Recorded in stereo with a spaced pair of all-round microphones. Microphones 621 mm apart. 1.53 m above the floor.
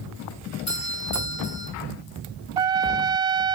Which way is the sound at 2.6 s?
60° right (ahead or behind).